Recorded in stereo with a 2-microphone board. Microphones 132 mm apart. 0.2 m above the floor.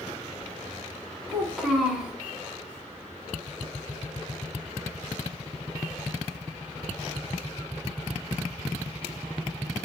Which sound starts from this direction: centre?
A child speaking, at 1.3 s.